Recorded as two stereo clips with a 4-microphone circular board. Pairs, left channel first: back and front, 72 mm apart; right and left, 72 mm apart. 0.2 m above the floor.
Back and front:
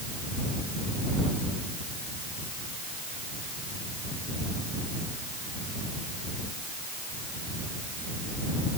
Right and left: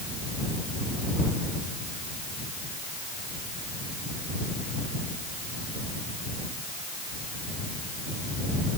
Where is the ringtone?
I don't hear a ringtone.